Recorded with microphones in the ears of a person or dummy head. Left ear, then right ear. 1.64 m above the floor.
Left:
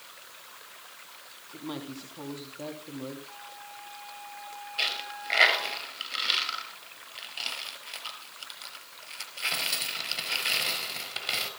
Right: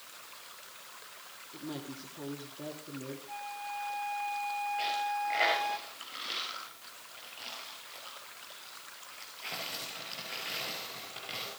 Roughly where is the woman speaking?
Left.